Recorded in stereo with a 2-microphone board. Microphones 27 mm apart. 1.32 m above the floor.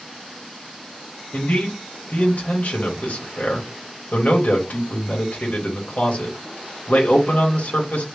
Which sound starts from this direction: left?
A man speaking, at 1.3 s.